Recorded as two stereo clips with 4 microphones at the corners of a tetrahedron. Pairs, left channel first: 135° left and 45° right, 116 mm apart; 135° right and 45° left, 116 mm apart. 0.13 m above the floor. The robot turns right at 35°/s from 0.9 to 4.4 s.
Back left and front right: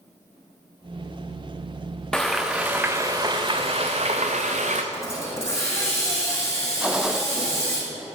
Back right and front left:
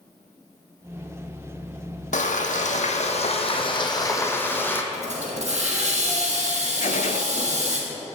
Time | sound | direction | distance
2.1 | frying | 140° right | 1.2 m
4.9 | a hiss | 70° left | 3 m
6.8 | a gunshot | 130° right | 0.5 m